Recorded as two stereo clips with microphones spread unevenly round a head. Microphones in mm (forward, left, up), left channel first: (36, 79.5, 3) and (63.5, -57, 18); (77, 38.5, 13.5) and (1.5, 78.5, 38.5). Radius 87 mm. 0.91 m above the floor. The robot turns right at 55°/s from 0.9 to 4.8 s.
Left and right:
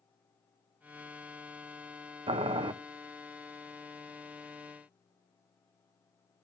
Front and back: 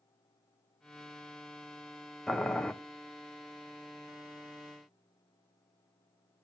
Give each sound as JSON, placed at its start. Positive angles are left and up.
{"t": 2.3, "sound": "boiling", "azimuth_deg": -75, "distance_m": 0.7}